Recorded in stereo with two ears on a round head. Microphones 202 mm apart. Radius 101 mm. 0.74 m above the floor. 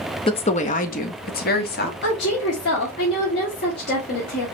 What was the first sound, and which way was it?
A woman speaking, 20° left (ahead or behind).